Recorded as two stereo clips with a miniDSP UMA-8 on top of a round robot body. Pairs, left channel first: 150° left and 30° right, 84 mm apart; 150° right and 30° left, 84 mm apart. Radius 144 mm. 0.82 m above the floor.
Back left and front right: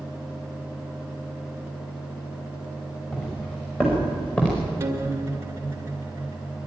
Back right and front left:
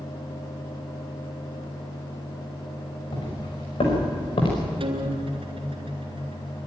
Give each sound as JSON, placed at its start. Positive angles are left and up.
{"t": 3.1, "sound": "footsteps", "azimuth_deg": -135, "distance_m": 6.5}
{"t": 4.8, "sound": "a guitar", "azimuth_deg": 35, "distance_m": 2.0}